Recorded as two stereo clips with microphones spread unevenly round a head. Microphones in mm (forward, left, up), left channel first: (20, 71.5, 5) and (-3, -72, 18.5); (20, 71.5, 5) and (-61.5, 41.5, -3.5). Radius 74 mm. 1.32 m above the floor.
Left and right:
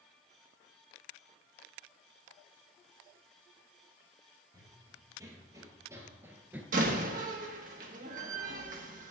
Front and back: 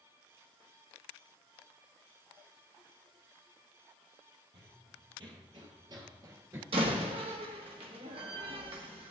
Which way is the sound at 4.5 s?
160° right.